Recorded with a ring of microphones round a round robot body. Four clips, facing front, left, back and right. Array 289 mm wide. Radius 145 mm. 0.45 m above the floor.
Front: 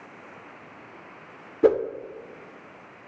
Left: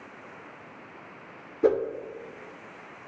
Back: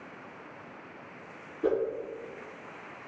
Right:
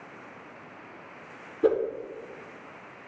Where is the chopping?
No chopping in this recording.